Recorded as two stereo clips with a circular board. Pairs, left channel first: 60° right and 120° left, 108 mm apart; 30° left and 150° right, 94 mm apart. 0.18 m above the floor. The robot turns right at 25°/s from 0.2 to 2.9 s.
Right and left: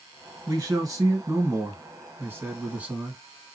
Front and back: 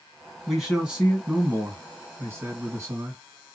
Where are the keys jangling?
I don't hear keys jangling.